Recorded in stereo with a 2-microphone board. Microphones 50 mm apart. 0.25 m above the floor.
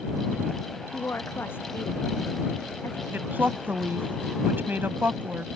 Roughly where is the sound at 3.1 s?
Right.